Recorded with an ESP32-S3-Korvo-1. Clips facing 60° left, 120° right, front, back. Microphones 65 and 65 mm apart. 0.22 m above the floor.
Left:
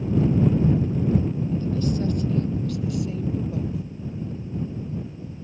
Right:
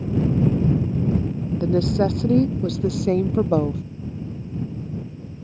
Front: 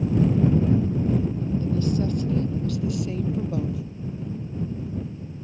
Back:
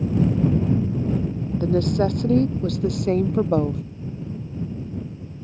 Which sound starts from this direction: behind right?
A woman speaking, at 1.6 s.